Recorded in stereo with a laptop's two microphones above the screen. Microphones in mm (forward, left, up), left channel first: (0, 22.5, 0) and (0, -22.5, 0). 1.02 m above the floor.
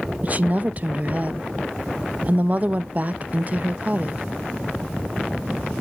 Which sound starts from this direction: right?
A woman speaking, at 0.2 s.